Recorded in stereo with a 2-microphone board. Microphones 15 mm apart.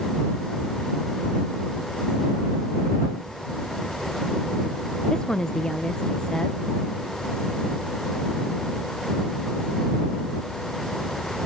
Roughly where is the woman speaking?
Left.